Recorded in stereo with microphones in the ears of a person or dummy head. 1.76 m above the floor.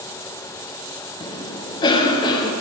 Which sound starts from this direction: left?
A cough, at 1.2 s.